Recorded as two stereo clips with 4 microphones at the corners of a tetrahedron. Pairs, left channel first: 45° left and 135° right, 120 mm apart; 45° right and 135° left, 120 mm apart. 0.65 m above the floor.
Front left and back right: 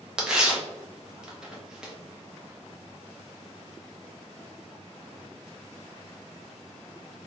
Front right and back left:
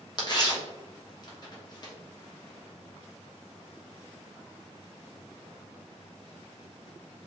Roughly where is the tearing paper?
Ahead right.